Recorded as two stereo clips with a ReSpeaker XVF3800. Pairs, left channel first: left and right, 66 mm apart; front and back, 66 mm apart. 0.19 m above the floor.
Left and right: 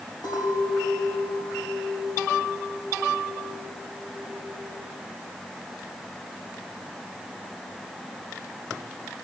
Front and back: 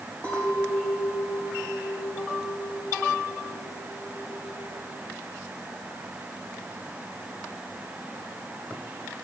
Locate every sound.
0.2 s a clink: 70° left, 4.5 m